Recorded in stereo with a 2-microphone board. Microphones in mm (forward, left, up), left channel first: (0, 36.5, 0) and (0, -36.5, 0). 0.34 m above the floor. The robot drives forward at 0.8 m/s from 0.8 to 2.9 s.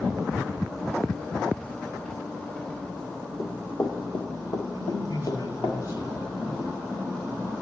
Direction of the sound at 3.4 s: 70° left (ahead or behind).